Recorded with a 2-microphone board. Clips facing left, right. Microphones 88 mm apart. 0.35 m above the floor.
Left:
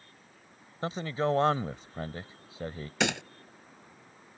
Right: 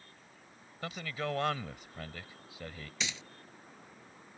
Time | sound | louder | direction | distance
0.8 | a man speaking | left 8 dB | 30° left (ahead or behind) | ?
3.0 | a gunshot | left 13 dB | 70° left (ahead or behind) | ?